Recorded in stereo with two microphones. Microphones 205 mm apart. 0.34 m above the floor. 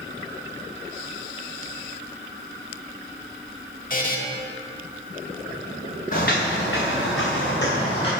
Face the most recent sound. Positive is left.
turn(degrees=50)  # may be behind; listen again after turning